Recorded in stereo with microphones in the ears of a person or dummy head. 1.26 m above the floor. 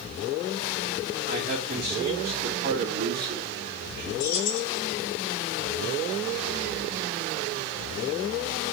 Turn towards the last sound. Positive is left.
turn(degrees=60)  # may be behind; listen again after turning